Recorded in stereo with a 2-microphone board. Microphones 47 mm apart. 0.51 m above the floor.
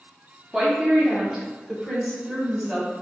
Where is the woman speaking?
15° right (ahead or behind), 0.8 m; by 2.9 s 10° right (ahead or behind), 1.9 m.